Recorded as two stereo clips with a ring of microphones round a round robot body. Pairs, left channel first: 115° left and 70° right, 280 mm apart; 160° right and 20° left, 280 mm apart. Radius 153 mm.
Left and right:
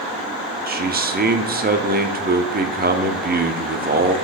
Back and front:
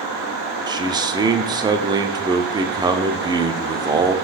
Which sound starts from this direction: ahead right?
A man speaking, at 0.7 s.